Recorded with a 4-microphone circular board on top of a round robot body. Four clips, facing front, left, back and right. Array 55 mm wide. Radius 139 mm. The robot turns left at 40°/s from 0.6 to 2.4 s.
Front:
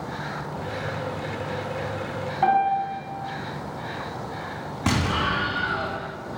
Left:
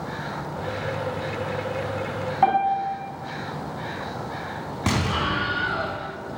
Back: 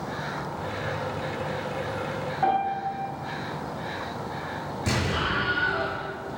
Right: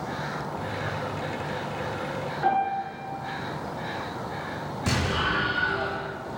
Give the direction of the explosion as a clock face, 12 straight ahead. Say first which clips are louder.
Left 2 dB, front 4 dB; 11 o'clock.